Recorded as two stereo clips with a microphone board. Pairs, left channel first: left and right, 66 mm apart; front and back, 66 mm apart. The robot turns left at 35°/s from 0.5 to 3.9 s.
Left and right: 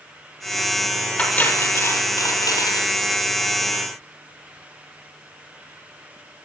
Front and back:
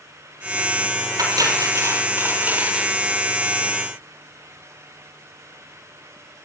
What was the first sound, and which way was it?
Cutlery clinking, 160° left.